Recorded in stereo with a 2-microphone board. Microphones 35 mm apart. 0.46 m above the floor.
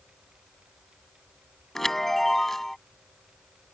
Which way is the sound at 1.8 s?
10° left (ahead or behind).